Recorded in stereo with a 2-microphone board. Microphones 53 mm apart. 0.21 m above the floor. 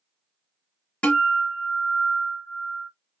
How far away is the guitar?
About 1.4 m.